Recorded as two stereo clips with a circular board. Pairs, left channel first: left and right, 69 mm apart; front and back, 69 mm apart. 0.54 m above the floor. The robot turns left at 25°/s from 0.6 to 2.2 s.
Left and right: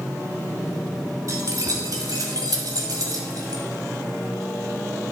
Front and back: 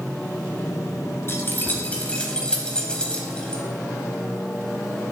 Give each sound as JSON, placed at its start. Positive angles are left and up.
{"t": 1.3, "sound": "keys jangling", "azimuth_deg": -55, "distance_m": 1.8}